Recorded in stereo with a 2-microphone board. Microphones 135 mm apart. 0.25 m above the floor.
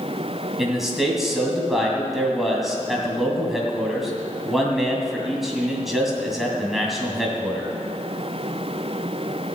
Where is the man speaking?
Centre (ahead or behind), 2 m.